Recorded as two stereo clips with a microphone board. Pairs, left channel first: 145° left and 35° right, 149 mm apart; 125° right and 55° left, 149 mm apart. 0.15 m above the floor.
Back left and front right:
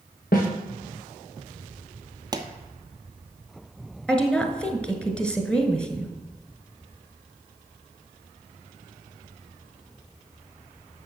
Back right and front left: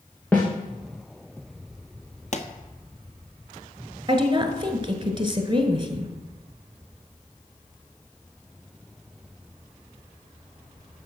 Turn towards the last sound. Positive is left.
turn(degrees=65)